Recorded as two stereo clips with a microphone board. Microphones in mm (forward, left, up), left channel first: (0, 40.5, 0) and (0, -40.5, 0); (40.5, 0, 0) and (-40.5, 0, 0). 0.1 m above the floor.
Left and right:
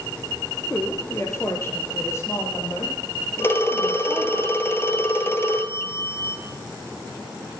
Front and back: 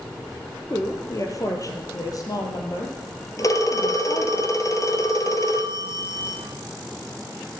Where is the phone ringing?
35° left, 1.8 m.